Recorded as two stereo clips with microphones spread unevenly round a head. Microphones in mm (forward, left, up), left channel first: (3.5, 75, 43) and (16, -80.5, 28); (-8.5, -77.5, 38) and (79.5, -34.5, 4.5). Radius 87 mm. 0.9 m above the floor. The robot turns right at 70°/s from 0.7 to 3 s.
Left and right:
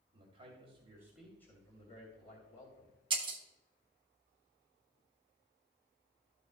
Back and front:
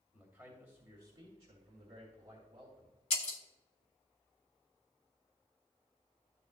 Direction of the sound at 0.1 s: 35° right.